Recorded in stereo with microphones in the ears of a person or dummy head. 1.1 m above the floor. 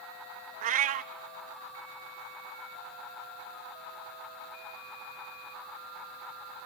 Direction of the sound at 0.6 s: 50° right (ahead or behind).